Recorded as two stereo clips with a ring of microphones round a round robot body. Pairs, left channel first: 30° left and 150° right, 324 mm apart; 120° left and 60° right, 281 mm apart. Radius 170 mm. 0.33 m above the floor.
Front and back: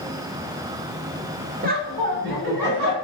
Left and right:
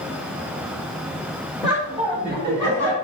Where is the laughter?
150° right, 1.0 m; by 2.9 s 100° right, 2 m.